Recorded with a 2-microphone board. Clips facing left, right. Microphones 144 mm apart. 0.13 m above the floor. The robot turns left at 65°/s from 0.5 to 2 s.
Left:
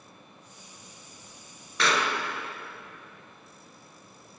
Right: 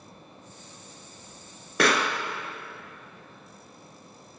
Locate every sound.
1.8 s a pop: 60° right (ahead or behind), 0.6 m; by 2.1 s 55° right (ahead or behind), 0.6 m